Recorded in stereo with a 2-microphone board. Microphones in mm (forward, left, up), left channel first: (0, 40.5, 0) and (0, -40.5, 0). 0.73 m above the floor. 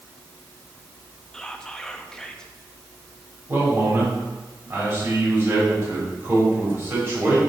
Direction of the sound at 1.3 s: 10° left (ahead or behind).